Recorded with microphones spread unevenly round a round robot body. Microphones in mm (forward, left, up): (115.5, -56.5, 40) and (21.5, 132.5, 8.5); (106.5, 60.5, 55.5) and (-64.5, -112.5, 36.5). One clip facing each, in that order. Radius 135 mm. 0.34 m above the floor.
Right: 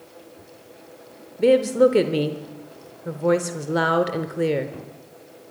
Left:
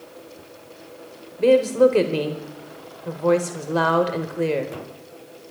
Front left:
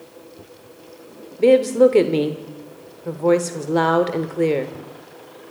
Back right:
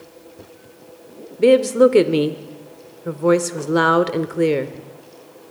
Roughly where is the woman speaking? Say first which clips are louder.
Left 1 dB, back right 1 dB; behind right.